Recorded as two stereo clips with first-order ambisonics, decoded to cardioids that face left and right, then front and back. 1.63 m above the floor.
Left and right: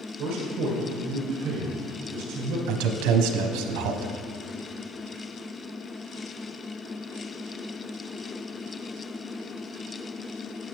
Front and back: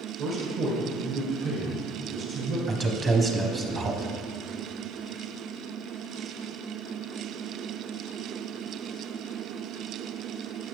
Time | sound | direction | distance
0.2 | a man speaking | 140° right | 1.7 m
2.7 | a man speaking | 110° right | 0.9 m